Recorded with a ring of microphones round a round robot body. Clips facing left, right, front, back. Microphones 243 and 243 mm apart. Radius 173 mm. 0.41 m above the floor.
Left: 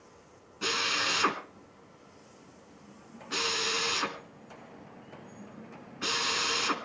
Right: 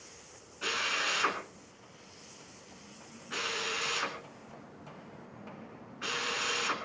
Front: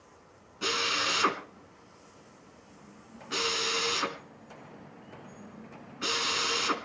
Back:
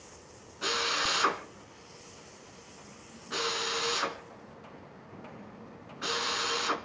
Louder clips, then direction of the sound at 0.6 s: Left 4 dB, front 1 dB; 55° left.